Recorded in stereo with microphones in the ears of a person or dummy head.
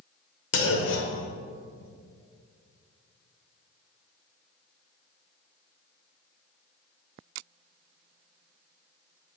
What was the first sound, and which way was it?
A clunk, 65° left (ahead or behind).